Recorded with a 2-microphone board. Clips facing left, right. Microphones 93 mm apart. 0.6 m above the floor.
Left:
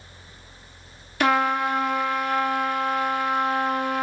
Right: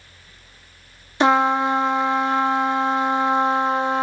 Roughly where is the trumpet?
Right.